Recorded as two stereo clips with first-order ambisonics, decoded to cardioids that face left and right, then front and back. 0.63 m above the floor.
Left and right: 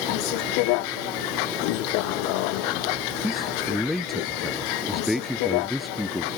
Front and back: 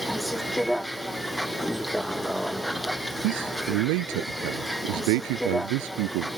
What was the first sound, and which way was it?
A vehicle, 90° left.